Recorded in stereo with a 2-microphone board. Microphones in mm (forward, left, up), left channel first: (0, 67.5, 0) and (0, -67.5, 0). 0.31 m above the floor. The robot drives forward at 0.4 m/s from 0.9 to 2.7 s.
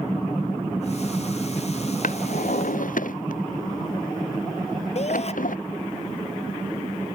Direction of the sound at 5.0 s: 50° left (ahead or behind).